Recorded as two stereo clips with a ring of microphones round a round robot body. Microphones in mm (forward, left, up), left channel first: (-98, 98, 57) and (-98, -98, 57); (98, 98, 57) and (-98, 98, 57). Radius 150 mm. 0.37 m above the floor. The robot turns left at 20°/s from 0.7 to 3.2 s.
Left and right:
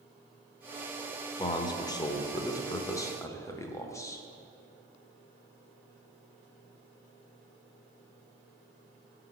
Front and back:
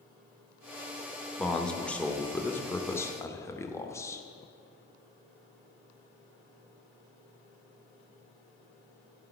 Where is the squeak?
I don't hear a squeak.